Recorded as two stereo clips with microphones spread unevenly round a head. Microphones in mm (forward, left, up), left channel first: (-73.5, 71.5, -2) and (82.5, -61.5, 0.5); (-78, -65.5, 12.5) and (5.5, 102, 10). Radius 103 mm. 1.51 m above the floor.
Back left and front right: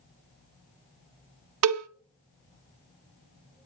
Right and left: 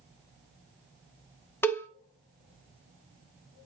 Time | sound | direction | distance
1.6 | a cowbell | 35° right | 0.6 m